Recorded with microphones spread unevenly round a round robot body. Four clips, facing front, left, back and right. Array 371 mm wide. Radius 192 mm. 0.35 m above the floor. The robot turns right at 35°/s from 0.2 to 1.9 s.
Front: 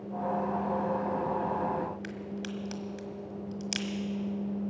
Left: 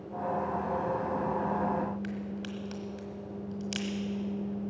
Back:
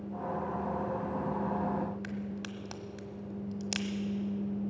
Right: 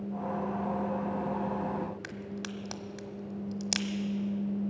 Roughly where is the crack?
Right.